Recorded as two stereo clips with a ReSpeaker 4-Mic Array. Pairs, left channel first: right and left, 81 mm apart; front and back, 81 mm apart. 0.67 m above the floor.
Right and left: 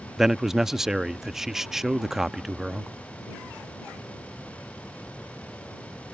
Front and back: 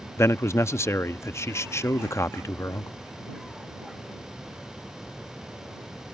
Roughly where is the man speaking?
Ahead.